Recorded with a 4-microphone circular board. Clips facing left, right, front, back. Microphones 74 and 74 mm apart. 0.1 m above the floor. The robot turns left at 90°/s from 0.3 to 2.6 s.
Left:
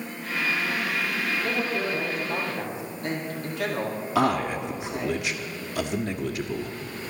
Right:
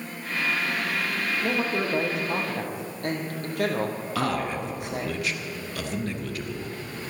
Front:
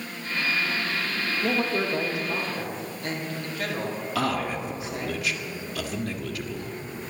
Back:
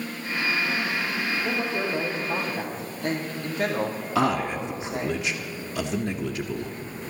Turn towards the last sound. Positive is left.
turn(degrees=140)